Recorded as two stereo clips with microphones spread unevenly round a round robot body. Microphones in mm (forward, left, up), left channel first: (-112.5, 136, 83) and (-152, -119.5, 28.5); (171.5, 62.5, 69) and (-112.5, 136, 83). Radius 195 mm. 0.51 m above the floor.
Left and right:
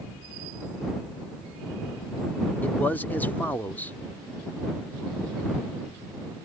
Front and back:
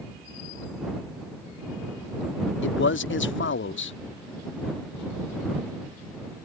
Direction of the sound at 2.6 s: 15° right.